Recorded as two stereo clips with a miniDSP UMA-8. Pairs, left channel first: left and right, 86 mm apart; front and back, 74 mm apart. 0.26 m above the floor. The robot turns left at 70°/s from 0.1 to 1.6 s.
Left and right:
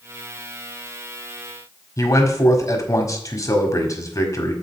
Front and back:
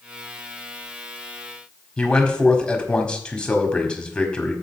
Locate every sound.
2.0 s a man speaking: 70° left, 1.5 m